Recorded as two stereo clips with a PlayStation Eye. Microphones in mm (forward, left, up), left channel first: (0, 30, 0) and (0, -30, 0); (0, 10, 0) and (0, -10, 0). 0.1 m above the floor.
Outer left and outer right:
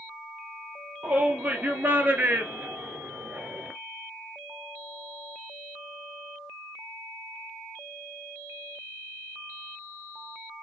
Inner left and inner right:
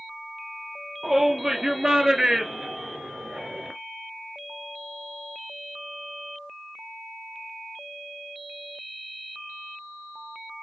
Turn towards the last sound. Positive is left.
turn(degrees=-20)  # may be behind; listen again after turning